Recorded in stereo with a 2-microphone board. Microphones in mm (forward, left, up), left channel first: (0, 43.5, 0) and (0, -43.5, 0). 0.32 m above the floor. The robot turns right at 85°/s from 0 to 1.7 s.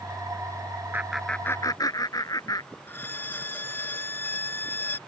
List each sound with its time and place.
0.9 s laughter: 20° right; by 2.7 s 45° left
2.9 s a violin: 25° left (ahead or behind)